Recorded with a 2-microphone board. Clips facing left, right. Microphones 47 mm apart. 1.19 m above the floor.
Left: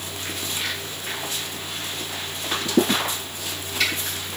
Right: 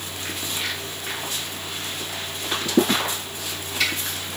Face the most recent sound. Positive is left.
No sound to turn to.